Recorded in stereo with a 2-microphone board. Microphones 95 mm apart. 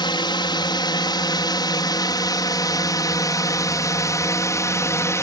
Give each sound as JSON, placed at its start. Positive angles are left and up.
{"t": 0.0, "sound": "a drone", "side_deg": 55}